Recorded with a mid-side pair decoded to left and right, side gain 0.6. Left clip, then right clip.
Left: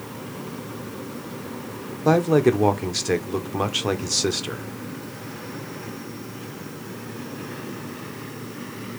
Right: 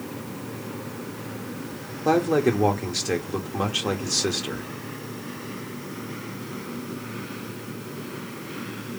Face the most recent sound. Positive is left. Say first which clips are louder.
# left 3 dB
turn(degrees=15)